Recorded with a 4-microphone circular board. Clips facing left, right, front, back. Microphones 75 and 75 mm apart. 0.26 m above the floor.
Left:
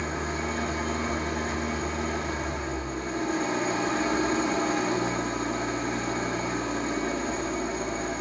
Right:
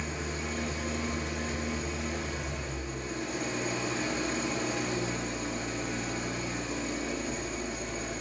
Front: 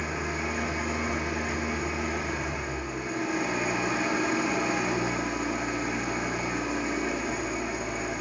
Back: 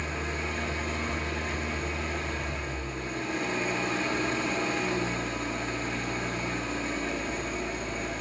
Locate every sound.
0.0 s an engine running: 75° left, 2.5 m